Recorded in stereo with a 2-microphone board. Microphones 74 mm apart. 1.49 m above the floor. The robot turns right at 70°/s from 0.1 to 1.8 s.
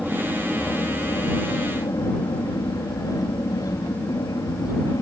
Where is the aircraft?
5° right; by 5.0 s 110° left.